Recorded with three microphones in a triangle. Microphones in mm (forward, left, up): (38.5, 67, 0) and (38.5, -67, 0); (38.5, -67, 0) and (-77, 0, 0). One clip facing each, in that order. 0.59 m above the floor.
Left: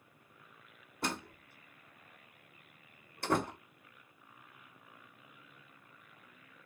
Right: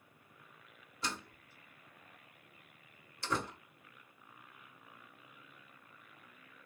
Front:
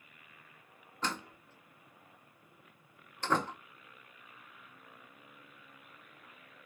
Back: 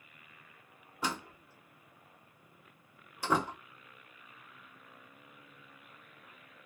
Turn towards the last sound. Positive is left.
turn(degrees=75)